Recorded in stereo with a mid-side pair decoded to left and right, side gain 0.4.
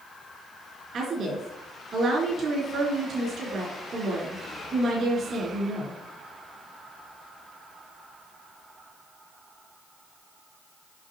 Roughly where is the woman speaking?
Ahead right.